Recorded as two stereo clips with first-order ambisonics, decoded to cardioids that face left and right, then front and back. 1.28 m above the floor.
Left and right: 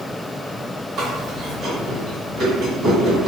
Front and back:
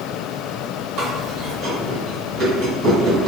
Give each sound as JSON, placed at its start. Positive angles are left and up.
{"t": 1.0, "sound": "chewing", "azimuth_deg": -135, "distance_m": 1.6}